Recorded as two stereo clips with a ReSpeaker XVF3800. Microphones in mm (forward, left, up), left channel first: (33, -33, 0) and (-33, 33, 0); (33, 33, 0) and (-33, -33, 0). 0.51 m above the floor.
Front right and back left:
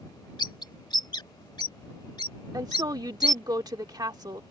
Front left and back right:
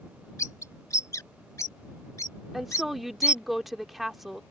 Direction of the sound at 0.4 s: 10° right.